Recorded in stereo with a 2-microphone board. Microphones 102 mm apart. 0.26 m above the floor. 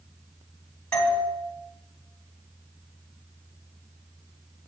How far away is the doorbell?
About 3 m.